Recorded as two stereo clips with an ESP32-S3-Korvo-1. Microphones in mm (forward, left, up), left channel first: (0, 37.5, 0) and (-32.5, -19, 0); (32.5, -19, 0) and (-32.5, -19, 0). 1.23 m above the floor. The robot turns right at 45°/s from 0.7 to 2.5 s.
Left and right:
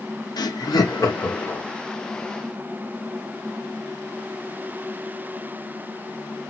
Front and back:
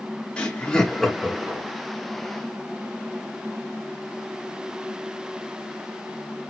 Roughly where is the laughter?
Left.